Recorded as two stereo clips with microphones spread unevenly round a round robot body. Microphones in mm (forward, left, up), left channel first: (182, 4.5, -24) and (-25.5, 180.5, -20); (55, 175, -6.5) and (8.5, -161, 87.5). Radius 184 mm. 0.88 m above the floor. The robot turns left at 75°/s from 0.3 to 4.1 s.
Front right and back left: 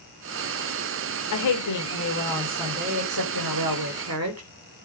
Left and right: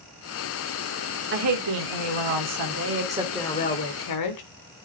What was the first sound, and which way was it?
A woman speaking, 40° right.